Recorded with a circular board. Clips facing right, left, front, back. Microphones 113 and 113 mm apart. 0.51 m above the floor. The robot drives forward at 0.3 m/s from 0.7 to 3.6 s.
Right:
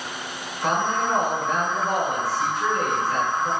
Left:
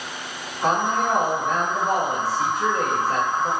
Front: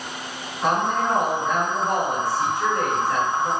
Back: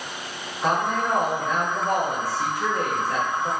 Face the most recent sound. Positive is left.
turn(degrees=110)